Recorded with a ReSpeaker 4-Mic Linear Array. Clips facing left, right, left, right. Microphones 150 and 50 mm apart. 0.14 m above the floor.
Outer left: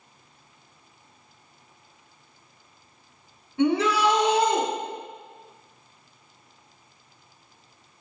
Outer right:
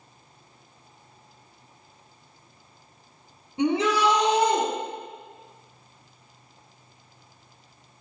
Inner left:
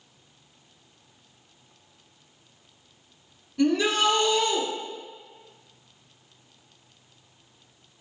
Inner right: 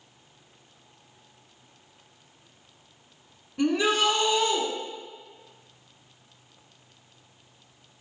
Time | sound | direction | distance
3.6 | a shout | 20° right (ahead or behind) | 1.2 m